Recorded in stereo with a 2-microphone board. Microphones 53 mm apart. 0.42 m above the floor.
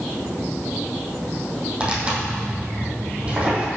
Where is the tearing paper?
25° right (ahead or behind), 4 m.